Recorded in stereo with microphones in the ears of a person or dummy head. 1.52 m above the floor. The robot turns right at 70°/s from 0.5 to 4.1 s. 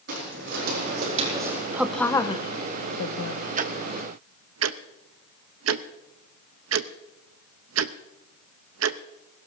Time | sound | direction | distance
0.1 | footsteps | 60° right (ahead or behind) | 4 m
1.7 | a woman speaking | 10° right (ahead or behind) | 0.9 m
3.6 | ticking | 40° right (ahead or behind) | 0.6 m